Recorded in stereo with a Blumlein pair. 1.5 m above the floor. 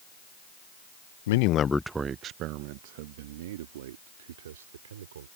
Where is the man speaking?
60° left; by 5.3 s 60° right.